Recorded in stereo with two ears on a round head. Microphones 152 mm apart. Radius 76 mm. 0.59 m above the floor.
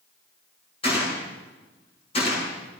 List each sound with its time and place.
0.8 s a gunshot: 35° left (ahead or behind), 8 m